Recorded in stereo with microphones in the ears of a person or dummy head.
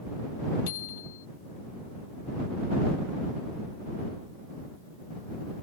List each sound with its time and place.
0.7 s a bicycle bell: 75° left (ahead or behind)